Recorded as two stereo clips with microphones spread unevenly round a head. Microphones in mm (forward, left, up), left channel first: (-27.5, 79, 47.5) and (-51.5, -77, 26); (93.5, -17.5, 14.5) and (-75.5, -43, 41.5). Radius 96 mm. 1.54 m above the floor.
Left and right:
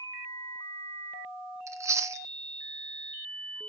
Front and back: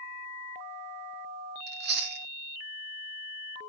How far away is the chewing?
About 1.5 m.